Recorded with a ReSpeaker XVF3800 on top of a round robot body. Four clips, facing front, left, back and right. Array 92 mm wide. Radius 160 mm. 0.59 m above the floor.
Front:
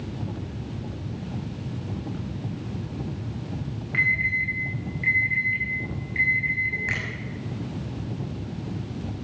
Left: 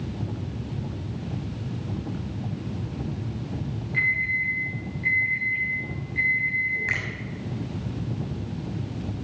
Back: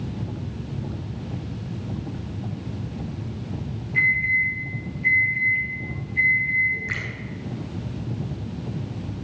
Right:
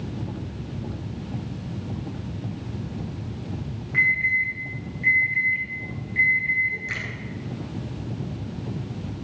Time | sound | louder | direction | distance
3.9 | an alarm | right 4 dB, back 3 dB | 25° right | 5.5 m
6.9 | a finger snap | left 3 dB, front 1 dB | 45° left | 5.5 m